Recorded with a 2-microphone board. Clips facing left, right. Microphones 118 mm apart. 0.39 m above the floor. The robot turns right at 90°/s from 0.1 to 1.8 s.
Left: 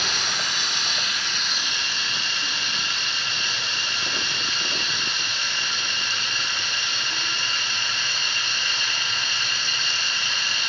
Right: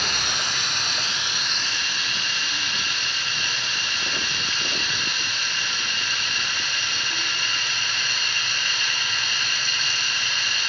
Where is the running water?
120° right, 1.2 m; by 10.7 s 30° left, 1.2 m.